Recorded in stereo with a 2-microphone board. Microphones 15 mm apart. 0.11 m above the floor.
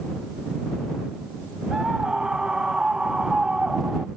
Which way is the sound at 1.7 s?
65° right (ahead or behind).